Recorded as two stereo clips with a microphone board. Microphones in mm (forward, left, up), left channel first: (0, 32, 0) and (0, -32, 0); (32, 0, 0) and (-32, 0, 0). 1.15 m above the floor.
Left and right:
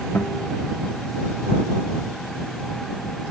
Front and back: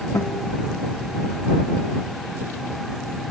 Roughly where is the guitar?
Ahead left.